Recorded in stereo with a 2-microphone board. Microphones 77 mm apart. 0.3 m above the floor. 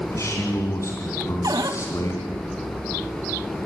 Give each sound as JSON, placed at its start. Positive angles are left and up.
{"t": 0.1, "sound": "a man speaking", "side_deg": 40, "distance_m": 3.5}
{"t": 1.4, "sound": "a cupboard door", "side_deg": -55, "distance_m": 1.4}